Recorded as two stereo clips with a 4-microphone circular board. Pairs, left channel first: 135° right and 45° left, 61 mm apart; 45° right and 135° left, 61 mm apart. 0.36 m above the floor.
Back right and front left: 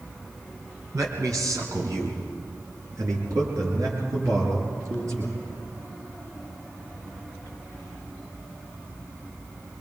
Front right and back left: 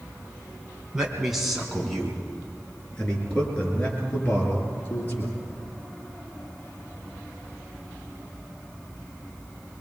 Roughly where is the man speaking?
Ahead left.